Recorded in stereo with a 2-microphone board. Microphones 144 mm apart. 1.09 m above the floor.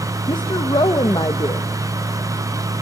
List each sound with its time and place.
0.3 s a woman speaking: 30° left (ahead or behind), 0.9 m